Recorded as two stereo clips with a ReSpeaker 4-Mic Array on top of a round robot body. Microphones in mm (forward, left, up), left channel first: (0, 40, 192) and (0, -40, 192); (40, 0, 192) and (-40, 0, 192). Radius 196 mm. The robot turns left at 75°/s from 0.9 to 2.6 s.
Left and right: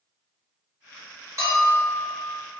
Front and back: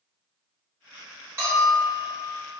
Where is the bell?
130° right, 1.5 m; by 2.1 s straight behind, 1.5 m.